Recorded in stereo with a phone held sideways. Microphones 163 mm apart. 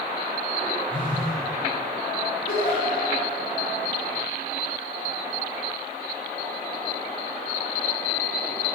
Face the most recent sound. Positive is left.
turn(degrees=70)  # may be behind; listen again after turning